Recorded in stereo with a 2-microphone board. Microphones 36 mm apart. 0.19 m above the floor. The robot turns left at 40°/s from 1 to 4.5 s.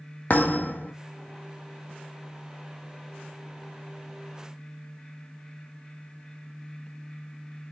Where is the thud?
55° left (ahead or behind), 1.8 m.